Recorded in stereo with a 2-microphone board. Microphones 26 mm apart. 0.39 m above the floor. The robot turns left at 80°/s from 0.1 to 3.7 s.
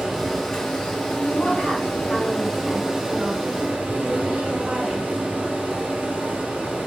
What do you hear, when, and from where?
0.0 s running water: 160° right, 1.8 m; by 6.9 s 90° right, 1.8 m
1.1 s a woman speaking: 110° left, 2.5 m; by 5.1 s 95° right, 2.5 m